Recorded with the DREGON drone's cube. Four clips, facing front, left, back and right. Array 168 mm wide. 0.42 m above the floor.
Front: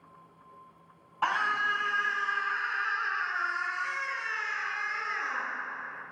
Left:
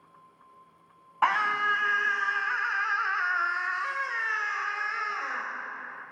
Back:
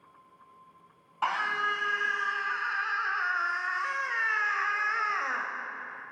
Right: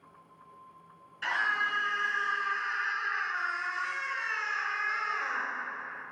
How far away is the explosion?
I don't hear an explosion.